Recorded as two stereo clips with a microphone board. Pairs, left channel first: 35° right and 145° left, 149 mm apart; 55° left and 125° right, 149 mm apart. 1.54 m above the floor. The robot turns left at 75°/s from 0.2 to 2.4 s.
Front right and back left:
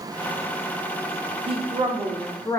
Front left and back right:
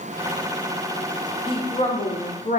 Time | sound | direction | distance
1.5 | a woman speaking | 105° left | 0.6 m